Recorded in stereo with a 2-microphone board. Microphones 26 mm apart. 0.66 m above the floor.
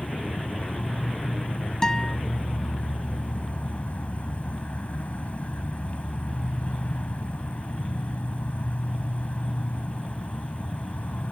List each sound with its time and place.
0.0 s an insect: 85° left
1.8 s a guitar: 25° left (ahead or behind)